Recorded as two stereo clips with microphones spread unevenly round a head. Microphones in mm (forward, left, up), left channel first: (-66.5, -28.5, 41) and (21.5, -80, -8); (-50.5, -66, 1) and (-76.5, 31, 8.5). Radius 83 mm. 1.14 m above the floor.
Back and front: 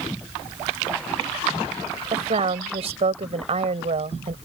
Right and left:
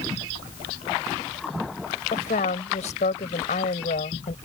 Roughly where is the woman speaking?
Ahead right.